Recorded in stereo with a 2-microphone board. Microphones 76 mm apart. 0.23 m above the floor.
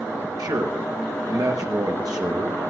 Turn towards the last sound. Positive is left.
turn(degrees=-60)  # may be behind; listen again after turning